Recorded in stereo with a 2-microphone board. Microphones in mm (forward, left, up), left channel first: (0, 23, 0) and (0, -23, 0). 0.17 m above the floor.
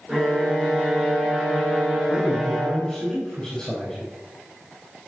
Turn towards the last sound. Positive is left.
turn(degrees=15)  # may be behind; listen again after turning